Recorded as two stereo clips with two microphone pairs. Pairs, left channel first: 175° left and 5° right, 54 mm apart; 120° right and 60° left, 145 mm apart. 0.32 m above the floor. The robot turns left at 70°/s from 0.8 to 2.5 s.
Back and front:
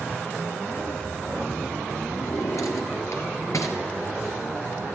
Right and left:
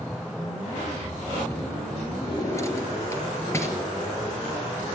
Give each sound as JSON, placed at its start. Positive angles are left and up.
{"t": 2.2, "sound": "a drawer", "azimuth_deg": -170, "distance_m": 3.5}